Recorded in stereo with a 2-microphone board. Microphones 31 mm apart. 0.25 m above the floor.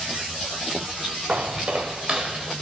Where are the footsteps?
45° right (ahead or behind), 0.8 m; by 2.5 s 10° right (ahead or behind), 1.1 m.